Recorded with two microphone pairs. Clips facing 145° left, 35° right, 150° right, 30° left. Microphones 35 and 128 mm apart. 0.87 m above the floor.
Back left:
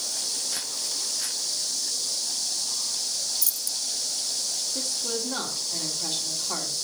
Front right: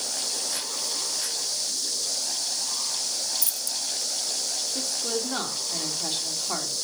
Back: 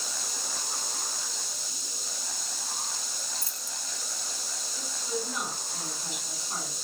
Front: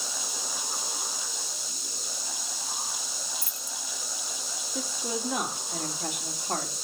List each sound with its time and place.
3.4 s keys jangling: 95° right, 1.0 m
4.8 s a woman speaking: 30° left, 2.5 m